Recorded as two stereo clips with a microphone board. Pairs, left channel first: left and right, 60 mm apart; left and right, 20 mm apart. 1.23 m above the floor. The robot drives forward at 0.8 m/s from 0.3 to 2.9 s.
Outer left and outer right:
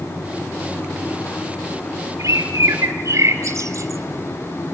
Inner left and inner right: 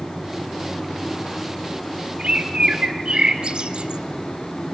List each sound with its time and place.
2.2 s a bird: 70° right (ahead or behind), 2 m; by 4.0 s 60° right (ahead or behind), 2.5 m